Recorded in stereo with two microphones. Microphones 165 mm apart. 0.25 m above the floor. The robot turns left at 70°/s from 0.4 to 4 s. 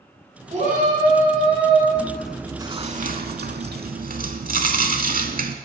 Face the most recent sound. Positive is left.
turn(degrees=-120)